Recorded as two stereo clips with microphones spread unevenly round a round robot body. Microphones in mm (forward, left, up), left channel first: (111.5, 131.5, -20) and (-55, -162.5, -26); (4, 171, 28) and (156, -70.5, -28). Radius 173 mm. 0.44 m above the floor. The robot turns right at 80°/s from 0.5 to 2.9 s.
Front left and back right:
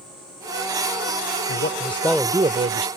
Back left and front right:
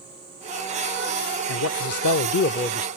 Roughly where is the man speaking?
Left.